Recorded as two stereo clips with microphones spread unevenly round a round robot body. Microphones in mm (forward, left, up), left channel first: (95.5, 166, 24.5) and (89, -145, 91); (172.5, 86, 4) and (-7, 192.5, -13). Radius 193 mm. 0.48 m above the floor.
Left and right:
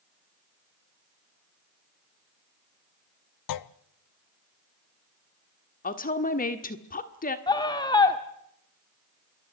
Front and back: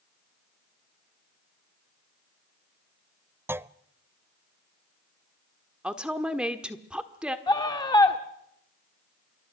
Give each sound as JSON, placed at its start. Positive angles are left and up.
{"t": 3.5, "sound": "a clunk", "azimuth_deg": 70, "distance_m": 0.7}
{"t": 5.8, "sound": "a woman speaking", "azimuth_deg": 70, "distance_m": 1.5}
{"t": 7.5, "sound": "a scream", "azimuth_deg": 35, "distance_m": 1.4}